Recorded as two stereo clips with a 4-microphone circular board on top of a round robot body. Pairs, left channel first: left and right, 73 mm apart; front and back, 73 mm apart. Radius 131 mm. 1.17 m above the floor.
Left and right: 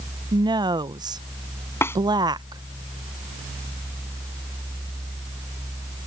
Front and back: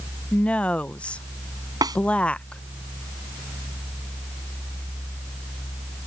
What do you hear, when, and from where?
0.3 s a woman speaking: 75° right
1.8 s a snare drum: 145° left